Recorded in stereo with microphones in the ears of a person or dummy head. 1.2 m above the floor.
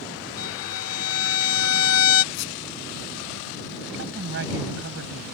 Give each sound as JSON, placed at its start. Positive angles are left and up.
{"t": 0.4, "sound": "a violin", "side_deg": 75}
{"t": 2.3, "sound": "a squeak", "side_deg": 60}
{"t": 3.9, "sound": "a woman speaking", "side_deg": -70}